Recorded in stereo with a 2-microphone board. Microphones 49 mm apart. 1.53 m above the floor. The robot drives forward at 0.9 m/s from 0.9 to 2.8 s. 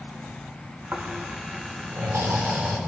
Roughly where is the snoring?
Right.